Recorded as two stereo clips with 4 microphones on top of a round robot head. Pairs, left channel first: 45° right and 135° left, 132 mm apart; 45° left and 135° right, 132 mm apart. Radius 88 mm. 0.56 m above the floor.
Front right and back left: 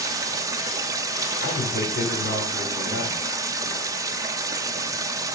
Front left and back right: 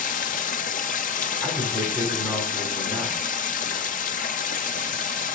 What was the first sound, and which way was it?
Running water, 65° left.